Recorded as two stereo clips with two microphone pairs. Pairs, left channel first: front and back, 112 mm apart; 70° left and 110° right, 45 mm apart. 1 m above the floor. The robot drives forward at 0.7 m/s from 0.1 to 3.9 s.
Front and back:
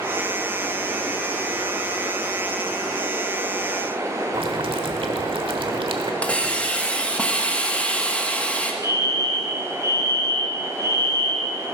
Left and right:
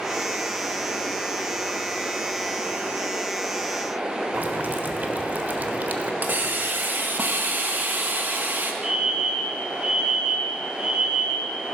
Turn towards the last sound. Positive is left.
turn(degrees=-55)